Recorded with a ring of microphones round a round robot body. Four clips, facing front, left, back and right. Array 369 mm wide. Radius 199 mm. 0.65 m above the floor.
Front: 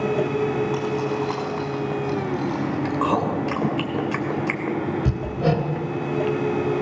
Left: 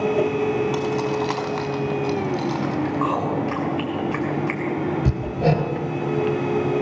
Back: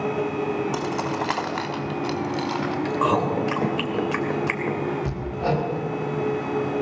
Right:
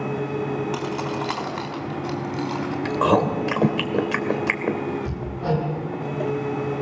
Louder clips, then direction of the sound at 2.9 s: Right 7 dB, back 1 dB; 95° right.